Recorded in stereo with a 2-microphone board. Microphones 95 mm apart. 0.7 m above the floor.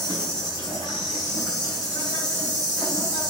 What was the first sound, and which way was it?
An insect, 40° left (ahead or behind).